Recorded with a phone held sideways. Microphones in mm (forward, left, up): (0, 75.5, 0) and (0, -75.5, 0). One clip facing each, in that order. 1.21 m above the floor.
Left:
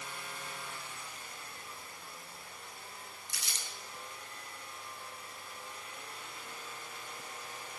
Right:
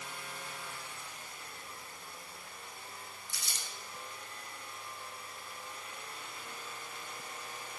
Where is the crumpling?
80° left, 0.7 m.